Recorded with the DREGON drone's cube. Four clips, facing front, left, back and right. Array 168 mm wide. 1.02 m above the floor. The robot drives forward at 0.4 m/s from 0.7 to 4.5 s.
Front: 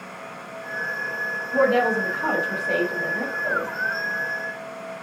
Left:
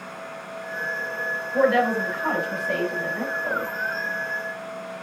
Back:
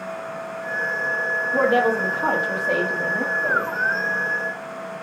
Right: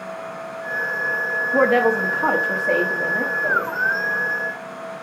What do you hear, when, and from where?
1.5 s a woman speaking: 100° right, 1.3 m; by 3.7 s 130° right, 1.6 m